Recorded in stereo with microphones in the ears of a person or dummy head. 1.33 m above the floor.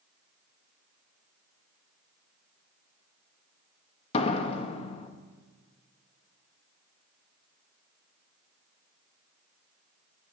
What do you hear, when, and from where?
4.1 s a door slam: 40° left (ahead or behind), 1.0 m